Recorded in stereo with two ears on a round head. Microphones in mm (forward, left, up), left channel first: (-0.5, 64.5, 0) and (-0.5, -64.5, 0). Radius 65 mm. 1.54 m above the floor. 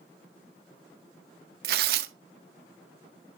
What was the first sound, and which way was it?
Tearing paper, 75° right (ahead or behind).